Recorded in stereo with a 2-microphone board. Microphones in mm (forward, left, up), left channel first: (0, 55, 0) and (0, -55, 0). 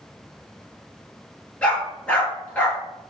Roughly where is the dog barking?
Centre.